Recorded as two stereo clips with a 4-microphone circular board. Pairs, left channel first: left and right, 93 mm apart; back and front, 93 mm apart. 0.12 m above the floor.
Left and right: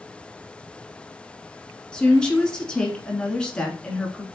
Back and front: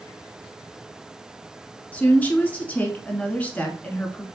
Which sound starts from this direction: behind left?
A woman speaking, at 1.9 s.